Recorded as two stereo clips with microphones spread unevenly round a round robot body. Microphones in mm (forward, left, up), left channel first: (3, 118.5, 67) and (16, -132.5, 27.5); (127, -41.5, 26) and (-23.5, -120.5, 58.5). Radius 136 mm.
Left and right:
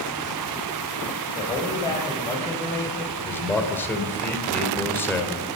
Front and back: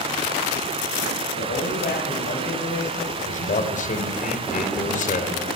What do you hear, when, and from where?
1.4 s a man speaking: 20° left, 2.5 m
3.2 s a man speaking: 5° left, 2.5 m